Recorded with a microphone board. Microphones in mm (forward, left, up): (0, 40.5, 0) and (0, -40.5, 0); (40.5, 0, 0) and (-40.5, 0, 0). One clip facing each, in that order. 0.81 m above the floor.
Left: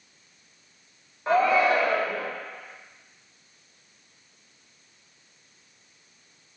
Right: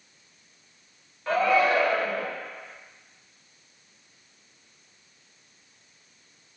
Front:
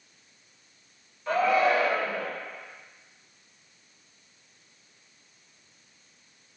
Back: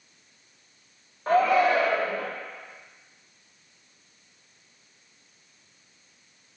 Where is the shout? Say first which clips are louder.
Left 1 dB, back 3 dB; 150° left, 0.7 m.